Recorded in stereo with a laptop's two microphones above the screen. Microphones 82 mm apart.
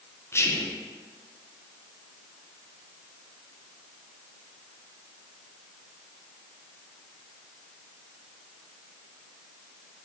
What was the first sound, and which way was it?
Whispering, 30° left (ahead or behind).